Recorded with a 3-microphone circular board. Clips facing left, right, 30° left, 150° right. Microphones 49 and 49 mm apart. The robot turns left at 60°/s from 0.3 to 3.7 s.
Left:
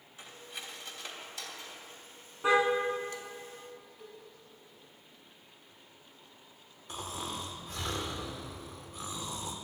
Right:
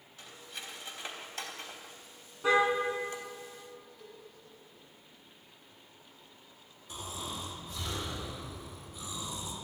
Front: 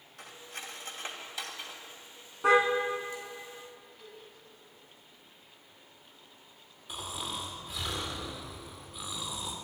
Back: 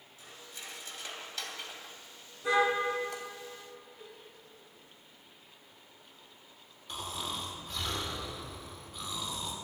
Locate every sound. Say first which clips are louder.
0.2 s cutlery clinking: left 1 dB, front 4 dB; 15° left, 2.5 m; by 3.2 s 160° right, 2.5 m
2.4 s a car horn: even, front 4 dB; 20° left, 3.5 m; by 2.6 s 10° left, 3.5 m
4.0 s a cowbell: left 1 dB, even; 140° left, 5.5 m
6.9 s snoring: left 2 dB, even; 110° left, 2 m